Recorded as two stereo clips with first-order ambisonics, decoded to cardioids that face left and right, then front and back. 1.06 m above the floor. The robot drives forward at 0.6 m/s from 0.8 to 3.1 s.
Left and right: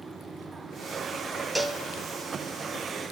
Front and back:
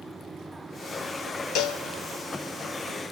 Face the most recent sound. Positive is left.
turn(degrees=-85)